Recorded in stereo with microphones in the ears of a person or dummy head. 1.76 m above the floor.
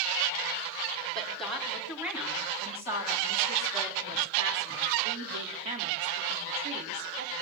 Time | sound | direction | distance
1.1 | a woman speaking | centre (ahead or behind) | 4.5 m